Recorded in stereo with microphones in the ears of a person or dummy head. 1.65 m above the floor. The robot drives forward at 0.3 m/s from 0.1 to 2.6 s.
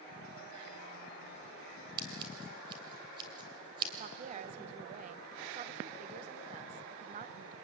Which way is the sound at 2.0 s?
20° right (ahead or behind).